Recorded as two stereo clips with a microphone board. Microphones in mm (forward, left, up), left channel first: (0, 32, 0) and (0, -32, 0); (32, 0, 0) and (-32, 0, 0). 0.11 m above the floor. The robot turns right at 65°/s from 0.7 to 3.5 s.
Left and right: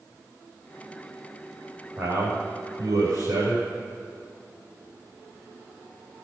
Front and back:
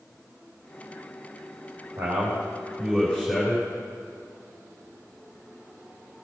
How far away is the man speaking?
About 6 m.